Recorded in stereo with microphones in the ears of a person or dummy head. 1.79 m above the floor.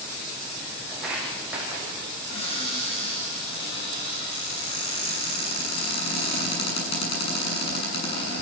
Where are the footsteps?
5° right (ahead or behind), 5.5 m; by 2.2 s 10° right (ahead or behind), 5.5 m.